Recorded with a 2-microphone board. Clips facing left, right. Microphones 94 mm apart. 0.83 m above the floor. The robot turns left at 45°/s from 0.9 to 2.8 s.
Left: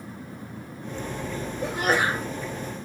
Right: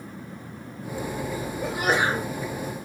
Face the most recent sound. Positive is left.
turn(degrees=-55)